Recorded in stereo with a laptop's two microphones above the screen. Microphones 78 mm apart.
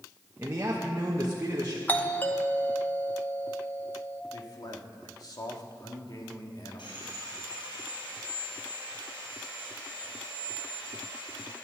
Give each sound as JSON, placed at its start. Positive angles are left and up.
{"t": 0.4, "sound": "a man speaking", "side_deg": -35, "distance_m": 1.1}
{"t": 1.9, "sound": "a doorbell", "side_deg": 25, "distance_m": 0.9}
{"t": 4.3, "sound": "a man speaking", "side_deg": 55, "distance_m": 1.5}
{"t": 6.8, "sound": "sawing", "side_deg": 85, "distance_m": 5.5}